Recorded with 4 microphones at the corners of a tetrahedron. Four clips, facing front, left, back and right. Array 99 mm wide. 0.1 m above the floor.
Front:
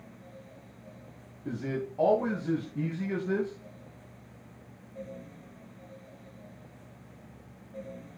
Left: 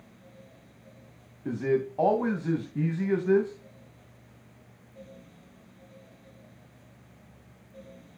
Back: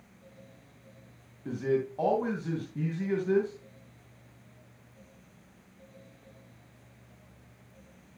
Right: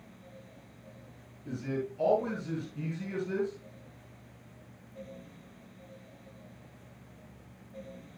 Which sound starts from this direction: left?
A man speaking, at 1.4 s.